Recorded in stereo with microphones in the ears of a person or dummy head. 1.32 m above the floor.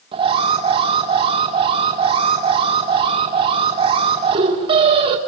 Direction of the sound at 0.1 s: 30° right (ahead or behind).